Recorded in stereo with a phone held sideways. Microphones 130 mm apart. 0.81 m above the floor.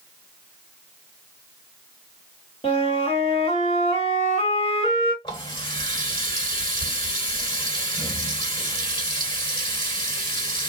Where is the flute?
45° left (ahead or behind), 1.4 m.